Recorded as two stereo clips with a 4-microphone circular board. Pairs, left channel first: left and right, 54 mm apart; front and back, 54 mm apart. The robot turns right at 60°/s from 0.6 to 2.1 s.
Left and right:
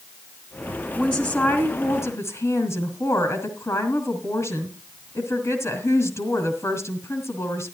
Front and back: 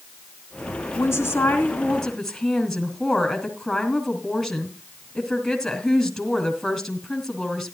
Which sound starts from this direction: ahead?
A woman speaking, at 0.9 s.